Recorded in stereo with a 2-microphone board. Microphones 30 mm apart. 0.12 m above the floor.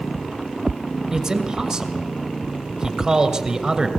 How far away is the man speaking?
About 1.7 m.